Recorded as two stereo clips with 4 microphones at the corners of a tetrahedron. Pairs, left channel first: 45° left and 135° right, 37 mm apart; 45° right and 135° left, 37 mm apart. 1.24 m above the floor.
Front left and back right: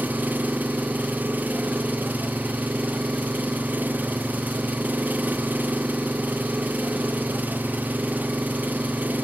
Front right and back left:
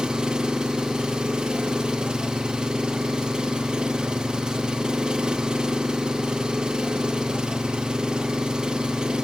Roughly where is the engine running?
Behind.